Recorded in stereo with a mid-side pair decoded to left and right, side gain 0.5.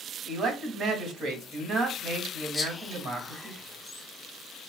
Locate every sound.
0.2 s a man speaking: 50° right, 2.5 m
2.5 s whispering: 25° left, 1.2 m